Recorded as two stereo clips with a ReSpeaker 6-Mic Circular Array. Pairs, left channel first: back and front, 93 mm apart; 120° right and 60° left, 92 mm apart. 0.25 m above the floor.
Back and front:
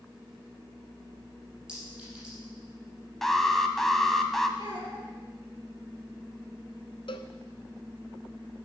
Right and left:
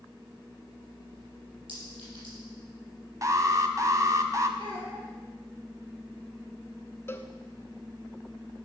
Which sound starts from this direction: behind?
A cowbell, at 7.1 s.